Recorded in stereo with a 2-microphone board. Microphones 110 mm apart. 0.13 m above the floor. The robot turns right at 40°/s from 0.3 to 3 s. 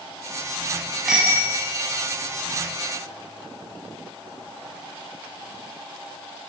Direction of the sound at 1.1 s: 5° right (ahead or behind).